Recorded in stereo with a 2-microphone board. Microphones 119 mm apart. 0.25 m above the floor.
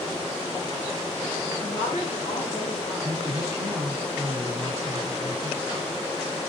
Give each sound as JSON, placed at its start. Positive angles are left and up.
{"t": 1.6, "sound": "a woman speaking", "side_deg": 65, "distance_m": 6.5}
{"t": 3.0, "sound": "a man speaking", "side_deg": -20, "distance_m": 3.0}